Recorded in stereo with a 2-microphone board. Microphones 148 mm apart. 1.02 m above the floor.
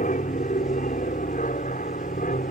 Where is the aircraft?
65° left (ahead or behind); by 2.5 s 70° left (ahead or behind).